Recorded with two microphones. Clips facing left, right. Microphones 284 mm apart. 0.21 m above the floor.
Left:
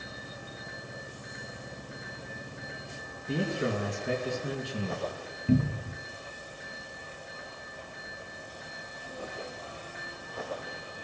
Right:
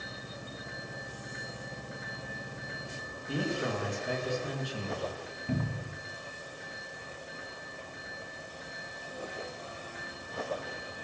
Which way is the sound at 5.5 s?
35° left (ahead or behind).